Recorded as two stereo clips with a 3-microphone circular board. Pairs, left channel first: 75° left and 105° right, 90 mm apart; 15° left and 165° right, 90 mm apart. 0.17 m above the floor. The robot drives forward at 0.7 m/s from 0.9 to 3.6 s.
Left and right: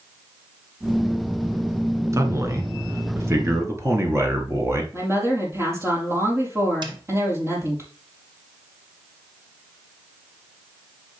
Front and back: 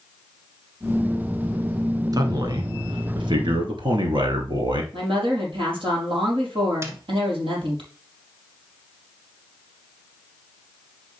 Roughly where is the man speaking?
Behind right.